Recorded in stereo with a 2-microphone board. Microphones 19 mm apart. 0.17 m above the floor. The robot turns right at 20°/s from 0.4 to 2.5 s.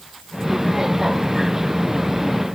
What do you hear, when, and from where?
Only background noise.